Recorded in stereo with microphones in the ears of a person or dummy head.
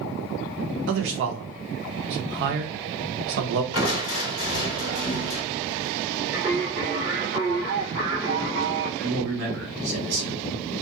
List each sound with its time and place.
0.9 s a man speaking: 55° right (ahead or behind), 0.6 m
3.7 s crushing: 70° left (ahead or behind), 1.1 m
6.3 s singing: 10° right (ahead or behind), 1.1 m
9.0 s a man speaking: 70° right (ahead or behind), 1.5 m